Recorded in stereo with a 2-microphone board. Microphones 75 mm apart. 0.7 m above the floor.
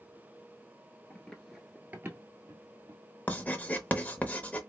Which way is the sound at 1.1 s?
15° left (ahead or behind).